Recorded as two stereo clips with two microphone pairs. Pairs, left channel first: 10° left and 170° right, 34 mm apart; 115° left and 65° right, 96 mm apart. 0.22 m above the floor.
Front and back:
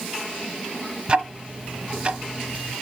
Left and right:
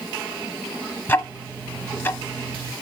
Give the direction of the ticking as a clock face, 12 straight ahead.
7 o'clock.